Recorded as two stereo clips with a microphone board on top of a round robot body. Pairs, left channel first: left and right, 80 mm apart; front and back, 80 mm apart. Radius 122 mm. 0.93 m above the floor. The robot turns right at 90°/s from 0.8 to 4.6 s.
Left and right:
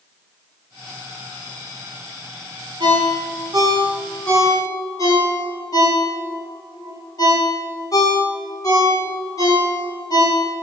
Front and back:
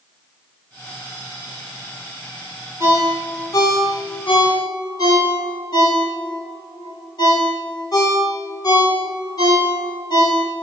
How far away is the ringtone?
About 1.6 m.